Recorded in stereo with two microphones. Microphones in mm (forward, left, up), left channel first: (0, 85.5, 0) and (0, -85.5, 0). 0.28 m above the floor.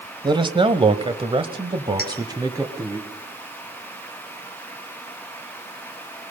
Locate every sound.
0.2 s a man speaking: 25° right (ahead or behind), 1.3 m; by 3.0 s 20° right (ahead or behind), 1.9 m
2.0 s a clink: 75° right (ahead or behind), 3.5 m